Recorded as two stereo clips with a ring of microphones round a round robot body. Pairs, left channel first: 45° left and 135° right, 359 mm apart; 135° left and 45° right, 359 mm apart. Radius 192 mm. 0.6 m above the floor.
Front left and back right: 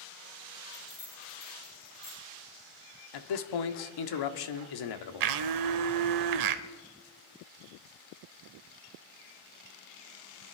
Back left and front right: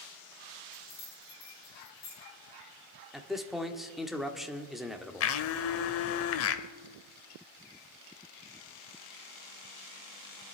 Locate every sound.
0.7 s keys jangling: 100° left, 6.5 m
3.1 s a man speaking: 45° left, 1.3 m
5.2 s a blender: 170° right, 0.7 m